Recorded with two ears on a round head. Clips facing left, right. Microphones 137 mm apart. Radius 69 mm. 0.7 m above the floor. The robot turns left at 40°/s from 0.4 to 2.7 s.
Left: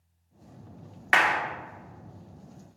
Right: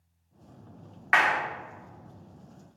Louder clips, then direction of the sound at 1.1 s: Left 1 dB; 35° left (ahead or behind).